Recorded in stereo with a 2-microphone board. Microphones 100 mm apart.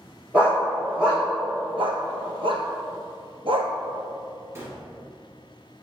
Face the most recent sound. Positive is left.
turn(degrees=-30)  # may be behind; listen again after turning